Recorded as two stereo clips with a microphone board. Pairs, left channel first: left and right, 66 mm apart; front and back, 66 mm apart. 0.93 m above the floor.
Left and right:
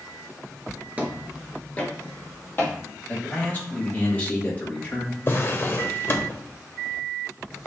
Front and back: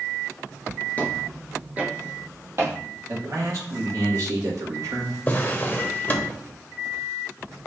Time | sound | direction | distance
1.0 | footsteps | 40° right | 1.0 m
3.1 | a man speaking | 155° left | 1.7 m
5.3 | a drawer | 50° left | 0.8 m